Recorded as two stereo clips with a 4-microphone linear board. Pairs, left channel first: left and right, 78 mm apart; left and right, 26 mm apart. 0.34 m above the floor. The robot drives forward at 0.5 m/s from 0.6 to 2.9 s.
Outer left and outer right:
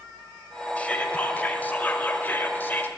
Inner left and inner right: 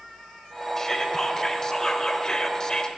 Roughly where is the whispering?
Centre.